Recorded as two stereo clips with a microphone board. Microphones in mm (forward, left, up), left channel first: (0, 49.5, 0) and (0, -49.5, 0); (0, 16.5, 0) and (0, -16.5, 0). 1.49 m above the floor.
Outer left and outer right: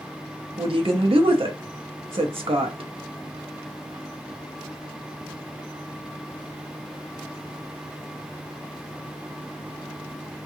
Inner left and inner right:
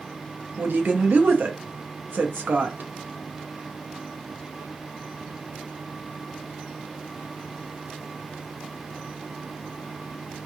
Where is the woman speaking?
65° right (ahead or behind), 0.6 m.